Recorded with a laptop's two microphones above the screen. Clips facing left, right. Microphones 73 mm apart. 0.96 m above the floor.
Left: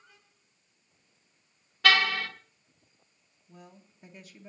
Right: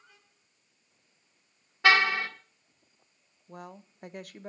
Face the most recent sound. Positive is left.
turn(degrees=-60)  # may be behind; listen again after turning